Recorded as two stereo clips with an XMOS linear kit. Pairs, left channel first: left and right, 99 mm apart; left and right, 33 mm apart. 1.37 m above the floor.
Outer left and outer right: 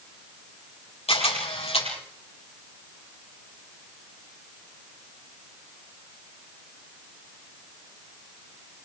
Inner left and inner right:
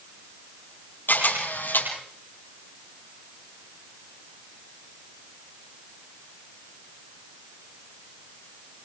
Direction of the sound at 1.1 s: 80° left.